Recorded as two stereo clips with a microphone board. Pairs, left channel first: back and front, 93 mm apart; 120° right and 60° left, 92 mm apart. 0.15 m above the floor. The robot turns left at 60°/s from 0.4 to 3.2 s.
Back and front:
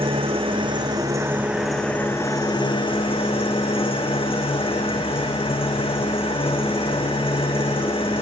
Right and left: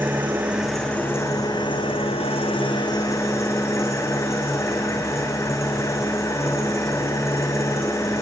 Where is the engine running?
10° right, 2.5 m; by 8.2 s straight behind, 2.5 m.